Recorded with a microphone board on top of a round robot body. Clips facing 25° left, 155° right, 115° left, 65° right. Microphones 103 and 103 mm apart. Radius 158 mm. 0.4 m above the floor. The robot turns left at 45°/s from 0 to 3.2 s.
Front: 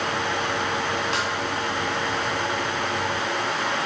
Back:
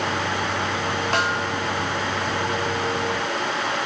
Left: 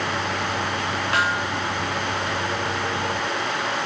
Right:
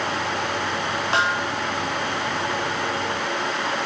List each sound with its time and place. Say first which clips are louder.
1.1 s a snare drum: back 3 dB, right 1 dB; 130° right, 3.5 m; by 1.5 s 145° right, 3.5 m